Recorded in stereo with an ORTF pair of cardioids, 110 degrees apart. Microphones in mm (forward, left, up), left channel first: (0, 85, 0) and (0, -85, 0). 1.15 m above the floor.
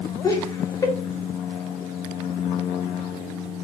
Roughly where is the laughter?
Ahead.